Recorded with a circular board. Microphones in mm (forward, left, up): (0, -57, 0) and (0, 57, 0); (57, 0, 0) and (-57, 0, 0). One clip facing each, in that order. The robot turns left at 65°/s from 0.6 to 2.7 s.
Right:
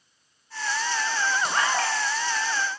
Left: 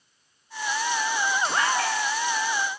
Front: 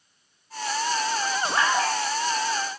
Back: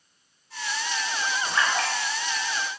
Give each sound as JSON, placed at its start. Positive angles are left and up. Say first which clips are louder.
{"t": 1.4, "sound": "a splash", "louder": "even, front 3 dB", "azimuth_deg": -55, "distance_m": 0.8}